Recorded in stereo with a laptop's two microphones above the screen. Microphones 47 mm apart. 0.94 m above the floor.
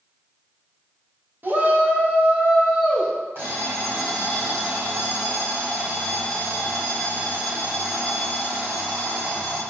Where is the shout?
45° right (ahead or behind), 1.1 m; by 3.1 s 5° right (ahead or behind), 1.0 m.